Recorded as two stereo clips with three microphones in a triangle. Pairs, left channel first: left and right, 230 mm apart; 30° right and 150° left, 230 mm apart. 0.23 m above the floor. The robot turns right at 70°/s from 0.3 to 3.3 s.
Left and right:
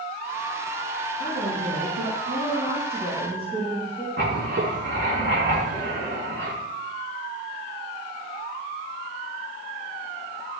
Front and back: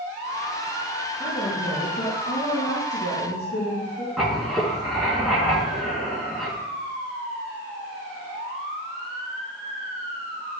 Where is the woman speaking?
145° right, 4.5 m; by 4.1 s 5° left, 4.5 m.